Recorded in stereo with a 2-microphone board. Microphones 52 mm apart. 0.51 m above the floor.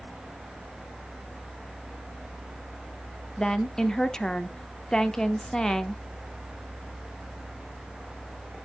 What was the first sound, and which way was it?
A woman speaking, 10° left (ahead or behind).